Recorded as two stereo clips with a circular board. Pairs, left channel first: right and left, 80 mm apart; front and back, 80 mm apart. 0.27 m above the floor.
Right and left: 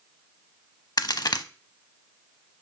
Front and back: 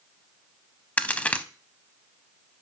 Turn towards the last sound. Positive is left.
turn(degrees=-70)